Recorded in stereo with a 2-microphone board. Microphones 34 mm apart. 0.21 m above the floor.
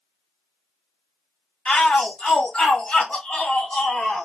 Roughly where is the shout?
Left.